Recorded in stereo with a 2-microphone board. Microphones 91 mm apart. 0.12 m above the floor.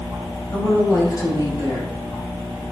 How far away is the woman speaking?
About 2.5 m.